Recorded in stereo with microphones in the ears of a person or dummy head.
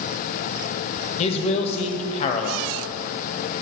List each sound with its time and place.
1.2 s a man speaking: 40° left (ahead or behind), 0.7 m